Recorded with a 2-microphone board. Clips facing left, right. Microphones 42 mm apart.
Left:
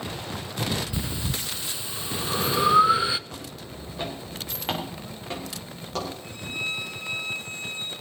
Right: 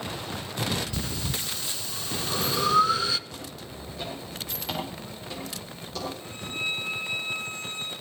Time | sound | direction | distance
0.9 | breathing | 20° left (ahead or behind) | 0.5 m
3.3 | footsteps | 35° left (ahead or behind) | 5 m
6.2 | a violin | 40° right (ahead or behind) | 7 m